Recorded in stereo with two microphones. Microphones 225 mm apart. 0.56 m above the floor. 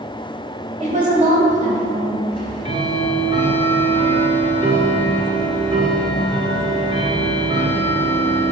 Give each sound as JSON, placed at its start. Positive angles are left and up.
{"t": 0.8, "sound": "a woman speaking", "side_deg": -30, "distance_m": 2.0}
{"t": 2.3, "sound": "ticking", "side_deg": -20, "distance_m": 1.7}